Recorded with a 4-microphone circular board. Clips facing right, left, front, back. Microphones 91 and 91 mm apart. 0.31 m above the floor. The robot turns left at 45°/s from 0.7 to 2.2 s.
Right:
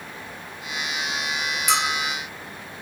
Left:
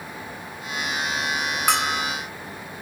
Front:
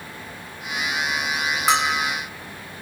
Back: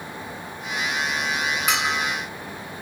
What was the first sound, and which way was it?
A bell, 55° left.